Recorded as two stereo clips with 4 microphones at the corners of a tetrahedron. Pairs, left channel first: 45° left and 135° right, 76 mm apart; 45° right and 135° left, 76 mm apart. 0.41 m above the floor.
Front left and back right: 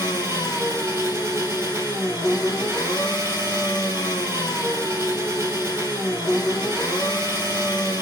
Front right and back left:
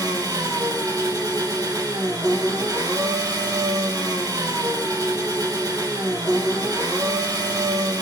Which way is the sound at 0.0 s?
170° left.